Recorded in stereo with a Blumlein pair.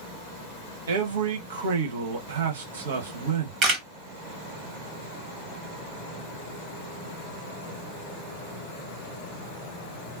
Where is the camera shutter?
30° right, 1.2 m.